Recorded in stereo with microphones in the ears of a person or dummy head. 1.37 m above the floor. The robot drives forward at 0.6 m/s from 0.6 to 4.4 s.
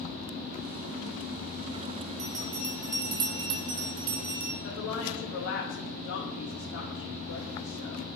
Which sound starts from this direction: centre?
A bell, at 2.2 s.